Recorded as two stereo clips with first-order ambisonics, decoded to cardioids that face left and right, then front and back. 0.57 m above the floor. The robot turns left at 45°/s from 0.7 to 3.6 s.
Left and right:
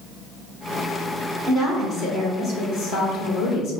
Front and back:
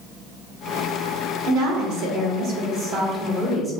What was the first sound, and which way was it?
A woman speaking, 175° left.